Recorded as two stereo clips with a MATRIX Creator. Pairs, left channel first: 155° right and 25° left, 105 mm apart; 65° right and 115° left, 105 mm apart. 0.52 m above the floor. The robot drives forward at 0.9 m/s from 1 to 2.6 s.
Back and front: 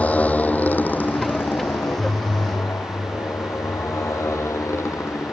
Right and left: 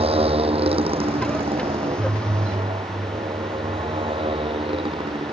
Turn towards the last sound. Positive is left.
turn(degrees=140)